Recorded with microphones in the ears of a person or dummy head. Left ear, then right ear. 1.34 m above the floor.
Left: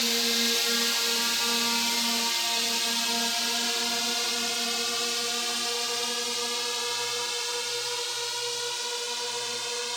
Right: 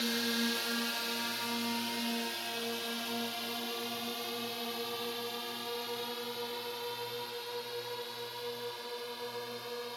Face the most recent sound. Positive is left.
turn(degrees=70)  # may be behind; listen again after turning